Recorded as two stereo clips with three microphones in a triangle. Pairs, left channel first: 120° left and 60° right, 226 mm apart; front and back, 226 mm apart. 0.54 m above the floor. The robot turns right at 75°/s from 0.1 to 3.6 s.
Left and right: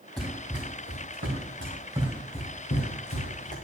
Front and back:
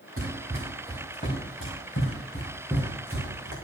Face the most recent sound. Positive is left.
turn(degrees=180)